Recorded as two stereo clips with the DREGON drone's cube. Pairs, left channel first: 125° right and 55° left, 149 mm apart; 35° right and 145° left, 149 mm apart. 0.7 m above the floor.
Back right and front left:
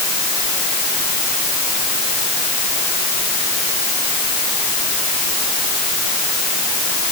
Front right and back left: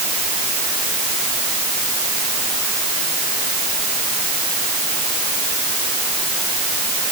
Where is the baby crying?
No baby crying in this recording.